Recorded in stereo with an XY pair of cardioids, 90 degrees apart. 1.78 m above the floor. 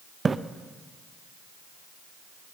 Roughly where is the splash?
Ahead right.